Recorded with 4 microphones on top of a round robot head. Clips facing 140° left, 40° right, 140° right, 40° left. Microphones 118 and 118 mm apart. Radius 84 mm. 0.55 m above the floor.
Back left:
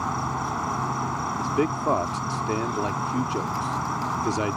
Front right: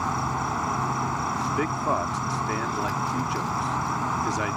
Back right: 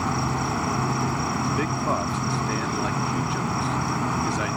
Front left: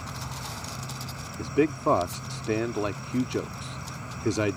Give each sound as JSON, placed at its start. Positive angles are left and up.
{"t": 0.0, "sound": "an insect", "azimuth_deg": -130}
{"t": 1.4, "sound": "a man speaking", "azimuth_deg": 85}